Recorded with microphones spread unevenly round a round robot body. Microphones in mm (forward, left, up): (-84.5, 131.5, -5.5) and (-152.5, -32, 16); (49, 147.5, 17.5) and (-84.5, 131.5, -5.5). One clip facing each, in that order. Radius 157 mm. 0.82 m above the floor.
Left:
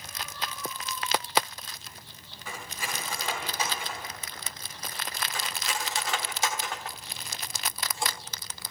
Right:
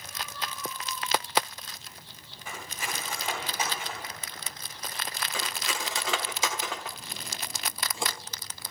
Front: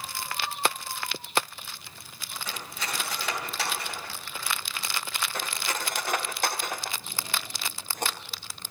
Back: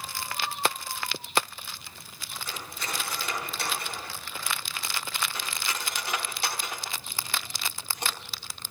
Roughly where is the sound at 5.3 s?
Ahead right.